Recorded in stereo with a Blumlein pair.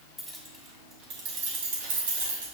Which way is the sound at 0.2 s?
Straight ahead.